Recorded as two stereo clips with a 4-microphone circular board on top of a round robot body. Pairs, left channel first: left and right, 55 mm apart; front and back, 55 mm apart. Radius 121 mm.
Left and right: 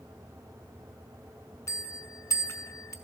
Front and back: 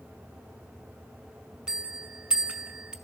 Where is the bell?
110° left, 1.2 m.